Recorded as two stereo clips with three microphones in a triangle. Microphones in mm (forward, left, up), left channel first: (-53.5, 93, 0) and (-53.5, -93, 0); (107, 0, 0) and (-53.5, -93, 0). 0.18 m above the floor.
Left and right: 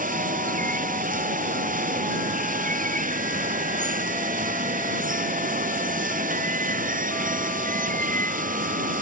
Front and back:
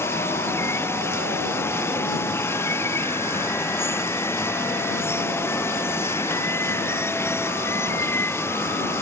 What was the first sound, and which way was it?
Running water, 45° right.